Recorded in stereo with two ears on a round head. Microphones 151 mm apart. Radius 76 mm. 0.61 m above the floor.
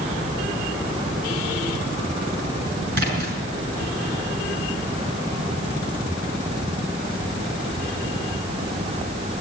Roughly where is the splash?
Right.